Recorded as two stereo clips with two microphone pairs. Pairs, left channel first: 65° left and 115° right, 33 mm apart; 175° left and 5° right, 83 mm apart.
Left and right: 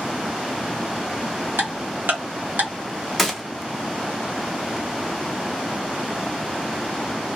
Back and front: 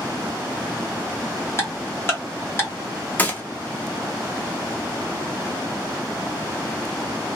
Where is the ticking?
120° right, 1.2 m.